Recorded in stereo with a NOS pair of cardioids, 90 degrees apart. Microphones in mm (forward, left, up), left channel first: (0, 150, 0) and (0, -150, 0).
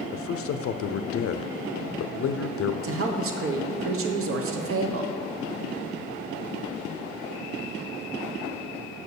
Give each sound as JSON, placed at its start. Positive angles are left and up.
{"t": 0.1, "sound": "a man speaking", "azimuth_deg": 50, "distance_m": 0.6}
{"t": 2.8, "sound": "a woman speaking", "azimuth_deg": -50, "distance_m": 1.2}